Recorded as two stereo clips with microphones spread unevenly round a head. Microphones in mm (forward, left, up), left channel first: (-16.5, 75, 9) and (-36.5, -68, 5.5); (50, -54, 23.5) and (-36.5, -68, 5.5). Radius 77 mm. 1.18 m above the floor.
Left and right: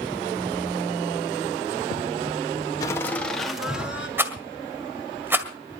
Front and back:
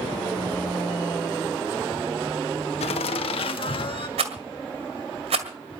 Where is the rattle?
175° right, 1.9 m.